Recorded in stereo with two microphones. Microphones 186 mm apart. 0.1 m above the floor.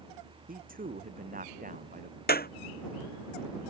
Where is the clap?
55° left (ahead or behind).